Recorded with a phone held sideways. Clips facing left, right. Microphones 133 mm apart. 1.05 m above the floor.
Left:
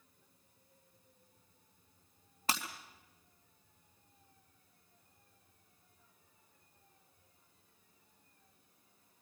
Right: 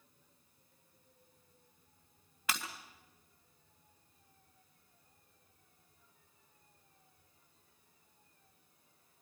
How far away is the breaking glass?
About 3.5 m.